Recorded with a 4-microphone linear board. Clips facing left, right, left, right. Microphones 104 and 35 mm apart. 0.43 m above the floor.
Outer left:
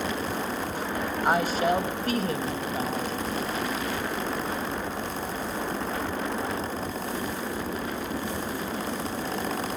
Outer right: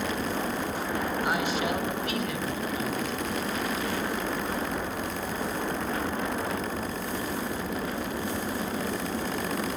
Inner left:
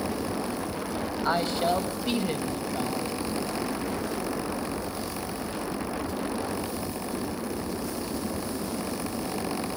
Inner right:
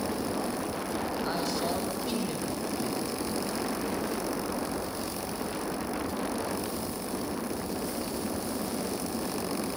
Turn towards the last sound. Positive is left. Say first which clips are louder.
# outer left 8 dB, inner left 9 dB
turn(degrees=40)  # may be behind; listen again after turning